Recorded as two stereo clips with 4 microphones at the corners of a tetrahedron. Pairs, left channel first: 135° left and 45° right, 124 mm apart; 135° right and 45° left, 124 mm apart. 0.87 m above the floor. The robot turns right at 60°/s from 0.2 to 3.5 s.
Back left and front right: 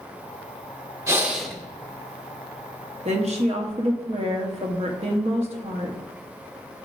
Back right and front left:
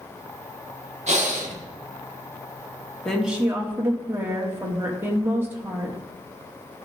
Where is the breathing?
20° left, 1.1 m; by 1.6 s 50° left, 1.1 m.